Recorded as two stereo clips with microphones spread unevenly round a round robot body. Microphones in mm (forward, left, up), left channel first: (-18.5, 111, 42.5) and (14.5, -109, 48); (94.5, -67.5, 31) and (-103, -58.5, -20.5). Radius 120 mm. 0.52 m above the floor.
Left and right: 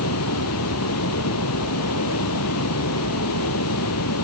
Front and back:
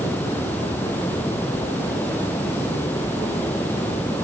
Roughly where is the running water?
Left.